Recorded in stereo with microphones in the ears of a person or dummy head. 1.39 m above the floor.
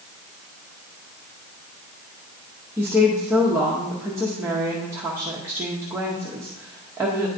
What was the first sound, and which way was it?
A woman speaking, 15° right (ahead or behind).